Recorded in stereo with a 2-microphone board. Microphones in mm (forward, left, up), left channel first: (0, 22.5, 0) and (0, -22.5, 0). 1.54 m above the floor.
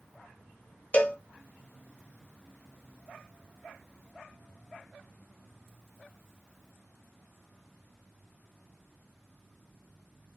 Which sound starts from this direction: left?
A cowbell, at 0.9 s.